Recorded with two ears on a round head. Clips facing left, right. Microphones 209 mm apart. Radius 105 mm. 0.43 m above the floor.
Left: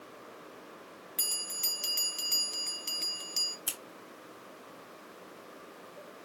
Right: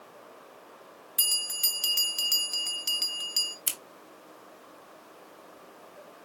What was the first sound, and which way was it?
A bell, 15° right (ahead or behind).